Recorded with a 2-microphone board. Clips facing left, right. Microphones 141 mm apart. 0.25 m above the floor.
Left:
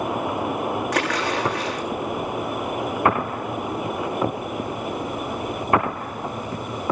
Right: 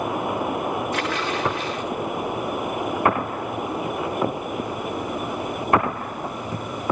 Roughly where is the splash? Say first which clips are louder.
Left 2 dB; left.